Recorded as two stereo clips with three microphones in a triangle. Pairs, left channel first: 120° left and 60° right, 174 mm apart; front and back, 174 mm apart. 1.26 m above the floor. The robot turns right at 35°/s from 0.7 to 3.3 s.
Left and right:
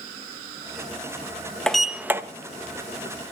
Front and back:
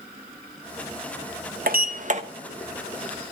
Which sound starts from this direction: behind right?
A sliding door, at 1.7 s.